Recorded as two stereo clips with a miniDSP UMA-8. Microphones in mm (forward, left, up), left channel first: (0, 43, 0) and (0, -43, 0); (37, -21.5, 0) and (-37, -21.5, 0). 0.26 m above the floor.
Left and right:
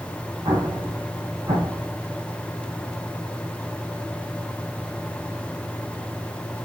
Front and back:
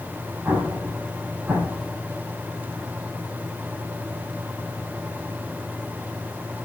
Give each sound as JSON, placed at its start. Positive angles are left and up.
{"t": 0.5, "sound": "an explosion", "azimuth_deg": -120, "distance_m": 7.0}